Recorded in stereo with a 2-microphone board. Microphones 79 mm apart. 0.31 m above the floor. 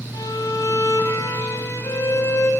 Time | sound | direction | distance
0.1 | a violin | 50° left (ahead or behind) | 2 m